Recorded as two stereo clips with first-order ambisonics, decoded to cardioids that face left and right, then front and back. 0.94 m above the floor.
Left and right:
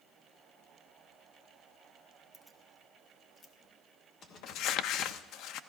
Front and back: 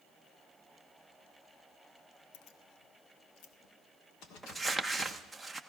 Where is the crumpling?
95° left, 0.6 m.